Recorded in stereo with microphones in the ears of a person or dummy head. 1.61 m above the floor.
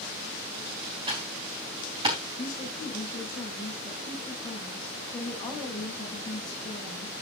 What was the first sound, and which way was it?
Typing on a keyboard, 25° right (ahead or behind).